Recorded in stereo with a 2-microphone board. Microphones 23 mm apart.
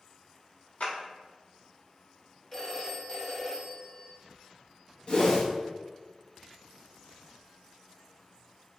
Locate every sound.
0.8 s a clap: 75° left (ahead or behind), 1.1 m
2.5 s a phone ringing: 25° left (ahead or behind), 0.9 m
5.1 s a whoosh: 45° left (ahead or behind), 0.7 m